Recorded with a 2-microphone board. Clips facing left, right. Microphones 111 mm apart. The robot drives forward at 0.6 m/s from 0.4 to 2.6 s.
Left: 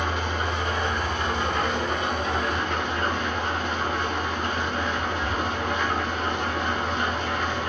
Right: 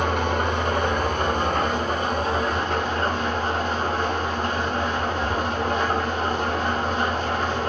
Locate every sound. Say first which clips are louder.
0.0 s an engine running: right 5 dB; 55° right (ahead or behind), 2.0 m; by 7.7 s 35° right (ahead or behind), 3 m